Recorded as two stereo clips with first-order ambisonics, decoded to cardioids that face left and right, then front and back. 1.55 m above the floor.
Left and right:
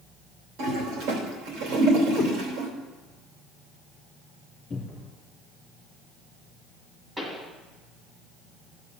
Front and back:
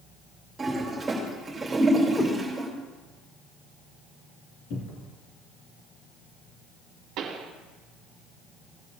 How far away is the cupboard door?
About 3 m.